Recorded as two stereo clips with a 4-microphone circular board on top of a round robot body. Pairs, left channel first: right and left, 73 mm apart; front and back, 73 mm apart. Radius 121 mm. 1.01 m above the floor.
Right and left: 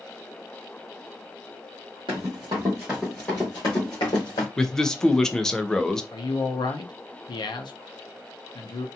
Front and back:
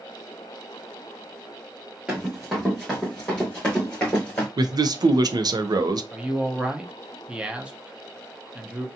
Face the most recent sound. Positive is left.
turn(degrees=-105)